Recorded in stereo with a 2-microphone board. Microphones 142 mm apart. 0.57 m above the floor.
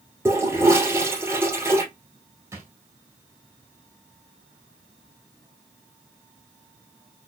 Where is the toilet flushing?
15° right (ahead or behind), 2.5 m.